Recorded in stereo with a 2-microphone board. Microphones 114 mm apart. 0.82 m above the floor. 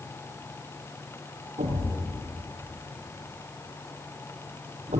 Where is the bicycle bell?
No bicycle bell in this recording.